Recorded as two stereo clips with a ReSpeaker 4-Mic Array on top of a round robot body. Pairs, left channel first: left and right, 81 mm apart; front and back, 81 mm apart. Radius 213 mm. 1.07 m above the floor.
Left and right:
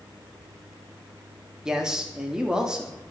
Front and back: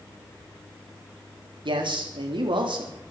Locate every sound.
1.6 s a man speaking: 170° right, 3.5 m